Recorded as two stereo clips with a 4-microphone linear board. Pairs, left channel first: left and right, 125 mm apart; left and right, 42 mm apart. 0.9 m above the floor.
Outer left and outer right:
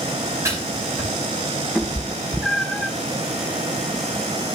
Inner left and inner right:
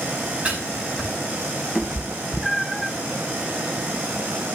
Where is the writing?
25° right (ahead or behind), 6 m.